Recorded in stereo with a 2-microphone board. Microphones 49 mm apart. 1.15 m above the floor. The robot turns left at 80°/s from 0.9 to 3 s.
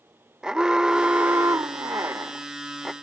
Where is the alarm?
15° right; by 2.9 s 175° right.